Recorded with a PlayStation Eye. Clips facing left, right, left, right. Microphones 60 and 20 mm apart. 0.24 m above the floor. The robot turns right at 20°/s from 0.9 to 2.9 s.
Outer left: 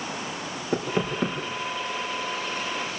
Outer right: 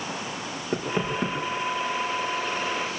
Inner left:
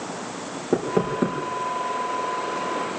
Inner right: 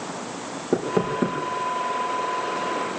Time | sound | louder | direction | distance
0.7 | knocking | outer left 1 dB, even | centre (ahead or behind) | 5.5 m